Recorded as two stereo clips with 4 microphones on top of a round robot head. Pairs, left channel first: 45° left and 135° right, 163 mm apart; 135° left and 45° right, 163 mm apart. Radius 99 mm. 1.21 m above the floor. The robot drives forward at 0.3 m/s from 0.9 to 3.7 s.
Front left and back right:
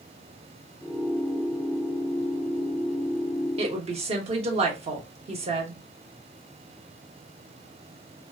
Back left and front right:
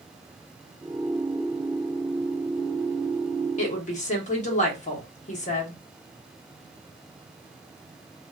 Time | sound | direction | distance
3.6 | a woman speaking | 175° left | 0.9 m